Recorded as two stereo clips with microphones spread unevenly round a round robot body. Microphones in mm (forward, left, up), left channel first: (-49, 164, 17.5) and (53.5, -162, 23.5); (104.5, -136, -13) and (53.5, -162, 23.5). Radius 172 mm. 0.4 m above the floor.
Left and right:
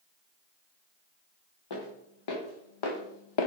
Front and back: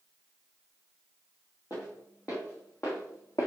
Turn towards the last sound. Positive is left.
turn(degrees=100)